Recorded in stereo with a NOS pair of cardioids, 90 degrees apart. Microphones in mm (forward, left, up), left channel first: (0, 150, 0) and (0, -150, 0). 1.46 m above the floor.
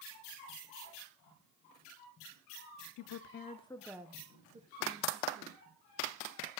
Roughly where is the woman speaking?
Ahead left.